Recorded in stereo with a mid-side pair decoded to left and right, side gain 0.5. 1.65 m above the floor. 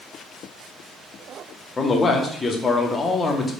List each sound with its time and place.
1.8 s a man speaking: 30° left, 1.3 m